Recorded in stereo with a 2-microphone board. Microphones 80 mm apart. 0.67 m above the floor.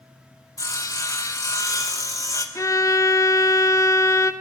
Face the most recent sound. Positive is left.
turn(degrees=45)  # may be behind; listen again after turning